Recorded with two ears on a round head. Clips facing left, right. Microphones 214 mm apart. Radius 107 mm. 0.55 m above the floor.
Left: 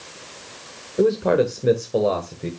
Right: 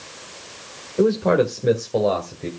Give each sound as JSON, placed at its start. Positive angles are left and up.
{"t": 1.0, "sound": "a man speaking", "side_deg": 5, "distance_m": 1.5}